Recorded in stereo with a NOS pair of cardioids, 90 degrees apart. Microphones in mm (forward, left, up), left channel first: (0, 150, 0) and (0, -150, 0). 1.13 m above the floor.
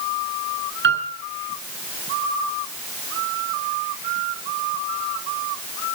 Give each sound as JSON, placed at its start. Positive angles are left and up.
{"t": 0.8, "sound": "a piano", "azimuth_deg": -40, "distance_m": 10.0}